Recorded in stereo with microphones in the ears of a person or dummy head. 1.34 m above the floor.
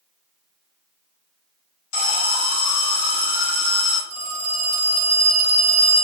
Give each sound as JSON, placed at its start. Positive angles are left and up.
{"t": 1.9, "sound": "an alarm", "side_deg": 70, "distance_m": 0.9}
{"t": 4.1, "sound": "a phone ringing", "side_deg": -60, "distance_m": 1.3}